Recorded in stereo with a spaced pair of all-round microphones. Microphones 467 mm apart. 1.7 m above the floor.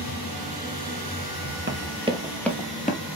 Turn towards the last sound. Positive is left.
turn(degrees=20)  # may be behind; listen again after turning